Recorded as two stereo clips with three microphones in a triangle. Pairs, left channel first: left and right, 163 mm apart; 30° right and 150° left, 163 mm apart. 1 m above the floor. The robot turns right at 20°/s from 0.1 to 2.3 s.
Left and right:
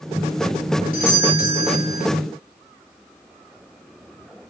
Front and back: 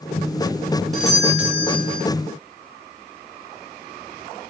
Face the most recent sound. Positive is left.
turn(degrees=85)